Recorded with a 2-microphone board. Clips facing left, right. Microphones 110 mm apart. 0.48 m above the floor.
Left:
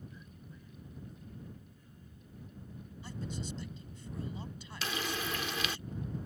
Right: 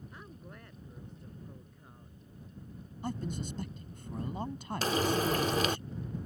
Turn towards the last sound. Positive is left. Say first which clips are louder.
# right 8 dB
turn(degrees=-40)  # may be behind; listen again after turning